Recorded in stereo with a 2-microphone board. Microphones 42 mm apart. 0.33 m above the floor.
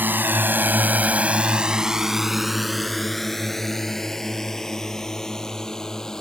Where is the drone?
55° right (ahead or behind); by 6.2 s 15° left (ahead or behind).